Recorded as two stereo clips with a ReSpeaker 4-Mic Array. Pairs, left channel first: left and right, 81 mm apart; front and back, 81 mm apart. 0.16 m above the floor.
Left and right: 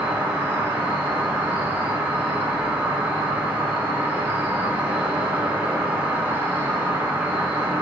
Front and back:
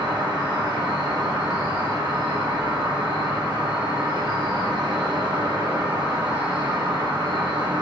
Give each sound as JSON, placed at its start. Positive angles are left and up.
{"t": 0.0, "sound": "an insect", "azimuth_deg": -160, "distance_m": 1.0}